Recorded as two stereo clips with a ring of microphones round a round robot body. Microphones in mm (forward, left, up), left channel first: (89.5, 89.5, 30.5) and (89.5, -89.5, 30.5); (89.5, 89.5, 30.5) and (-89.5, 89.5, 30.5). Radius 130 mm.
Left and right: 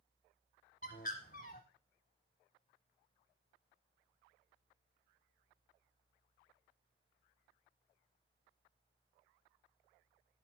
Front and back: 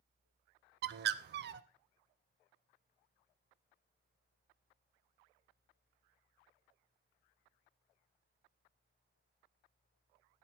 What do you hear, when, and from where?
0.8 s a bird: 150° left, 0.6 m